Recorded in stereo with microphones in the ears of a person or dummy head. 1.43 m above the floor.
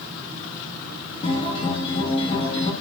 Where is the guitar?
30° left (ahead or behind), 2 m.